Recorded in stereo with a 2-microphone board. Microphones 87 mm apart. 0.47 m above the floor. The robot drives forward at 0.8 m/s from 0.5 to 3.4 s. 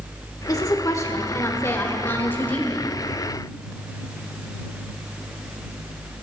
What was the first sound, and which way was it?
A woman speaking, 40° left (ahead or behind).